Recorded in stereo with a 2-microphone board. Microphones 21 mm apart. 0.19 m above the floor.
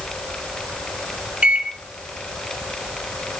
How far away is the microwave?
About 1.8 m.